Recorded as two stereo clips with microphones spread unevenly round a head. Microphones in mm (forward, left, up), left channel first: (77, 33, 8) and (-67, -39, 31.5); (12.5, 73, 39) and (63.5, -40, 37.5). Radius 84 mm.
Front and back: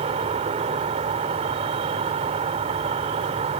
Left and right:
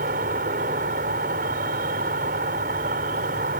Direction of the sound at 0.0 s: 100° right.